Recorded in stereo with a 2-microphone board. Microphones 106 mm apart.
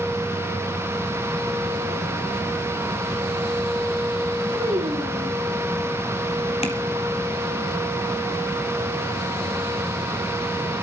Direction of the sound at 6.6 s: 80° left.